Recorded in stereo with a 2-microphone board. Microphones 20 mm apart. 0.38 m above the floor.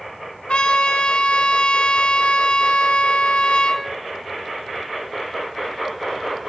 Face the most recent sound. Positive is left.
turn(degrees=80)